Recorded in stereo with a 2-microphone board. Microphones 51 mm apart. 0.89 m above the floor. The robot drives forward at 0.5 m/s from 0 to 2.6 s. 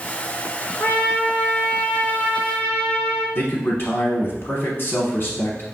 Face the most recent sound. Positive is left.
turn(degrees=40)  # may be behind; listen again after turning